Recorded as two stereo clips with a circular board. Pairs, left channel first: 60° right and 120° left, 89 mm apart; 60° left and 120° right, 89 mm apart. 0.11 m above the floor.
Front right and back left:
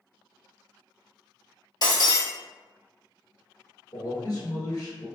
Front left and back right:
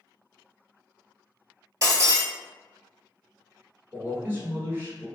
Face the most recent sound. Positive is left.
turn(degrees=-65)